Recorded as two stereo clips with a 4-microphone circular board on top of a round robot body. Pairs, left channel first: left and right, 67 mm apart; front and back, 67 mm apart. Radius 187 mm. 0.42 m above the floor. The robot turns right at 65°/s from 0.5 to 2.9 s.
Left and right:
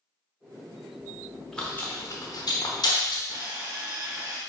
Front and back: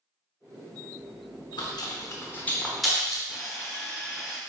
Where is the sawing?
95° right, 1.6 m.